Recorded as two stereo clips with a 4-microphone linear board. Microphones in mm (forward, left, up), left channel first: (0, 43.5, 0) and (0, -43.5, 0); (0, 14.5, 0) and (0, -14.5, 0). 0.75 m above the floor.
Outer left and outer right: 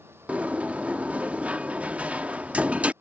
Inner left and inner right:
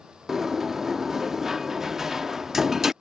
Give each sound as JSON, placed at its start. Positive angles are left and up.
{"t": 0.3, "sound": "a sliding door", "side_deg": -15}